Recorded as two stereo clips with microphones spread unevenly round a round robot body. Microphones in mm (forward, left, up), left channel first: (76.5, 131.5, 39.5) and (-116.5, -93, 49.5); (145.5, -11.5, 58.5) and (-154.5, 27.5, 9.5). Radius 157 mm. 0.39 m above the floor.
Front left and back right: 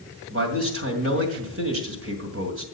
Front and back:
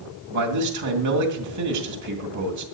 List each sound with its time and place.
0.3 s a man speaking: 175° right, 2 m